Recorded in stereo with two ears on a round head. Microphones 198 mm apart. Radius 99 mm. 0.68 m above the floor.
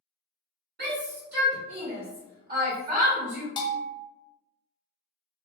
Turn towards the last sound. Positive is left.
turn(degrees=20)  # may be behind; listen again after turning